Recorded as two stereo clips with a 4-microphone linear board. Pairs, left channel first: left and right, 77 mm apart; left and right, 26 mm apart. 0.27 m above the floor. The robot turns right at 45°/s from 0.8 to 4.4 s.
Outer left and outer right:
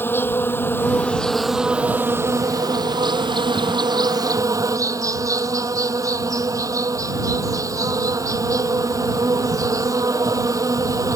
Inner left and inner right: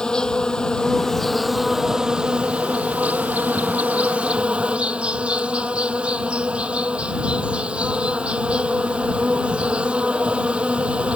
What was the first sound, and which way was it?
An insect, 150° left.